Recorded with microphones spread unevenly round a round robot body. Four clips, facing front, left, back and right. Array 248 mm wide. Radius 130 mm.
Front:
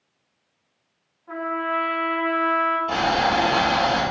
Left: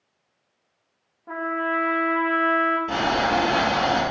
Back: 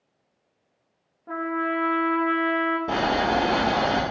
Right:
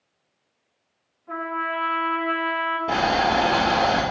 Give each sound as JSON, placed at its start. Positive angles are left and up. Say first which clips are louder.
{"t": 1.3, "sound": "a trumpet", "louder": "left 2 dB, even", "azimuth_deg": 145, "distance_m": 1.5}
{"t": 2.9, "sound": "boiling", "louder": "right 1 dB, even", "azimuth_deg": -155, "distance_m": 2.0}